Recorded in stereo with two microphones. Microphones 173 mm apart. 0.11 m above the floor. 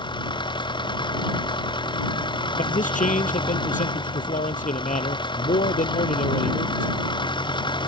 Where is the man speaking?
50° left (ahead or behind).